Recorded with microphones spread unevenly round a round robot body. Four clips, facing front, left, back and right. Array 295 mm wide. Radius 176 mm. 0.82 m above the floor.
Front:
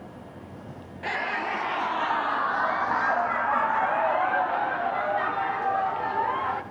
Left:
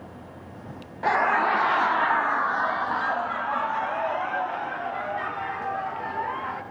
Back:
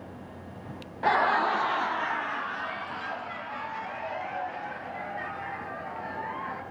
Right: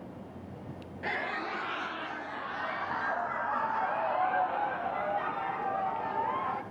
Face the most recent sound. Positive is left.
turn(degrees=20)